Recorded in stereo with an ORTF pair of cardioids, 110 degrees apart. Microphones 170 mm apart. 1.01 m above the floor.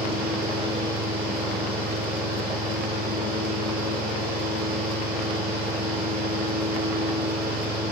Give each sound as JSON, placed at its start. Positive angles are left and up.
{"t": 0.0, "sound": "a fan", "azimuth_deg": -55, "distance_m": 1.2}